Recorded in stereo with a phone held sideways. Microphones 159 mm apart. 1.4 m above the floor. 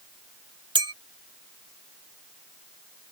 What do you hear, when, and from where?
0.8 s a clink: 30° right (ahead or behind)